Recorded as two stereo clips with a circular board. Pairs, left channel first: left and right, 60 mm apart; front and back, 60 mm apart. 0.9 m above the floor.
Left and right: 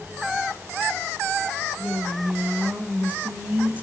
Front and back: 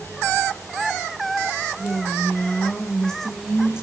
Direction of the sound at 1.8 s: 25° right.